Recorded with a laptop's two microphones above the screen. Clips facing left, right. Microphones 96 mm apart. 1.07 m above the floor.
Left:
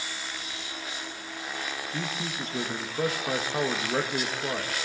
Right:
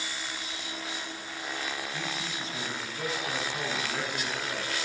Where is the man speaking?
55° left (ahead or behind), 1.2 m.